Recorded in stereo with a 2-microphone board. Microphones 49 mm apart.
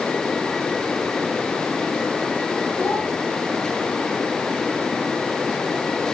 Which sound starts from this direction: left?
A child speaking, at 2.8 s.